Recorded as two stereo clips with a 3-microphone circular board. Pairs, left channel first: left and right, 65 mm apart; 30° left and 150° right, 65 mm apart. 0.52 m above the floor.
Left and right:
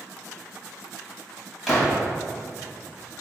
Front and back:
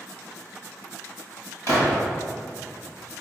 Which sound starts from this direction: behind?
A gunshot, at 1.7 s.